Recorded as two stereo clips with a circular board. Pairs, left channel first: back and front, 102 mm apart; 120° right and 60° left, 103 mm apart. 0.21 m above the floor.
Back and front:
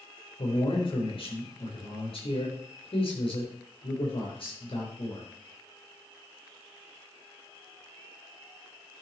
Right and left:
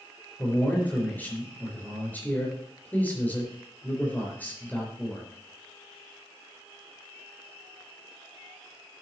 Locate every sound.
0.4 s a man speaking: 170° left, 4 m